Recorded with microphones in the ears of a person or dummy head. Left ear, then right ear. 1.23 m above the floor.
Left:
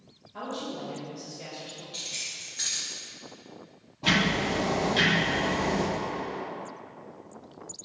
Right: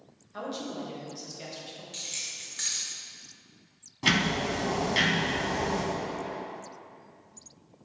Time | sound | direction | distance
0.3 | a woman speaking | 60° right (ahead or behind) | 1.5 m
1.9 | keys jangling | 20° right (ahead or behind) | 0.8 m
4.0 | ticking | 60° right (ahead or behind) | 1.7 m